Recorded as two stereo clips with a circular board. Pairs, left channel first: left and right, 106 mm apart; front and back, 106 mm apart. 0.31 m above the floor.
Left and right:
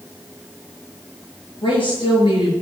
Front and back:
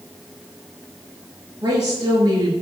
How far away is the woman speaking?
About 5 m.